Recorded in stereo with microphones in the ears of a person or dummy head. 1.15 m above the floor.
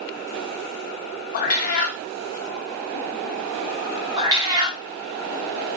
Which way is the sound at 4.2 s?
15° right (ahead or behind).